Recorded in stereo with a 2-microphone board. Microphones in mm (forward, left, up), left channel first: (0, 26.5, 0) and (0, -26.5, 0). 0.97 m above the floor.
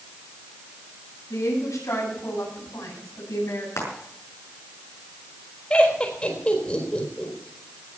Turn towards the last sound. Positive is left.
turn(degrees=25)  # may be behind; listen again after turning